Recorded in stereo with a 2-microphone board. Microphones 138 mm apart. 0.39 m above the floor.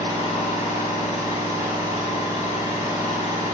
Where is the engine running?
25° right (ahead or behind), 1.3 m.